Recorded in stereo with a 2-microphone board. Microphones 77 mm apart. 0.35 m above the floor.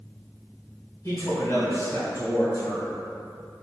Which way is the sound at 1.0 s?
40° left (ahead or behind).